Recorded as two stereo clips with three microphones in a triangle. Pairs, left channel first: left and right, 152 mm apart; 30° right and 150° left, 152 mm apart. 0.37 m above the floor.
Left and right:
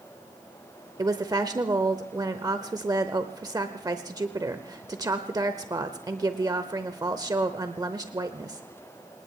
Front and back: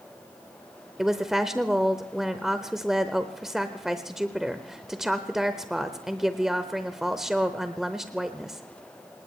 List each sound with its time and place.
1.0 s a woman speaking: 125° right, 0.9 m